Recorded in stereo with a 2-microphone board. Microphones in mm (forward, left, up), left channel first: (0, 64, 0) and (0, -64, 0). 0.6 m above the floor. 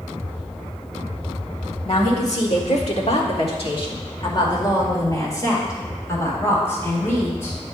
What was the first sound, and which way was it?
A woman speaking, 55° left (ahead or behind).